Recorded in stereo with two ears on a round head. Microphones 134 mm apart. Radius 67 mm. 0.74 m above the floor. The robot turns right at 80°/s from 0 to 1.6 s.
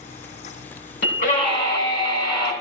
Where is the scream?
105° left, 7 m; by 2.5 s 150° left, 7 m.